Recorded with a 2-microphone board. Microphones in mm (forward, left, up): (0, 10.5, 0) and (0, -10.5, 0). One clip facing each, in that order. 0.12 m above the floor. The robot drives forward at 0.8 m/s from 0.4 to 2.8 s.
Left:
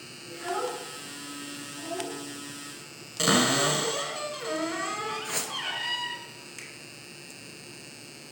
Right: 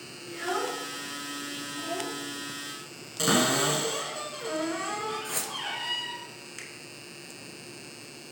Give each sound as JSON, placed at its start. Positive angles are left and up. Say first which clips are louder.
{"t": 0.3, "sound": "a child speaking", "louder": "right 1 dB", "side_deg": -40, "distance_m": 1.2}
{"t": 3.2, "sound": "a cupboard door", "louder": "left 1 dB", "side_deg": 10, "distance_m": 1.3}
{"t": 5.2, "sound": "a whoosh", "louder": "left 1 dB", "side_deg": 20, "distance_m": 0.8}
{"t": 6.6, "sound": "a finger snap", "louder": "right 1 dB", "side_deg": -15, "distance_m": 1.0}